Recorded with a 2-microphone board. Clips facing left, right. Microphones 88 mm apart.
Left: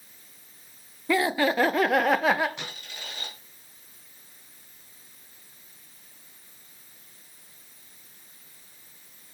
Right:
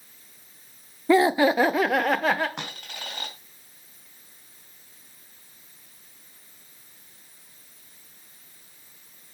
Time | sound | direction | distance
1.1 | laughter | 25° right (ahead or behind) | 0.5 m
2.6 | a dropped coin | 70° right (ahead or behind) | 3 m